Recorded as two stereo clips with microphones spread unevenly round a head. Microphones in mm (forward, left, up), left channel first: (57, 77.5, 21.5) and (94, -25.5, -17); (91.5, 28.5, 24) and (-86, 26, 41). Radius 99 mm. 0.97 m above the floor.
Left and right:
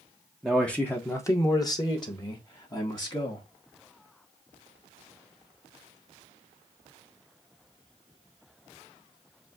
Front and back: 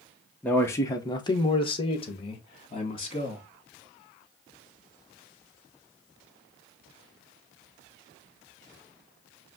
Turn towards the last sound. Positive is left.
turn(degrees=55)